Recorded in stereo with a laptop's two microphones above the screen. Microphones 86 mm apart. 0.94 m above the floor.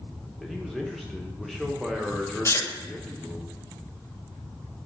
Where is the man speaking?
5° left (ahead or behind), 0.9 m.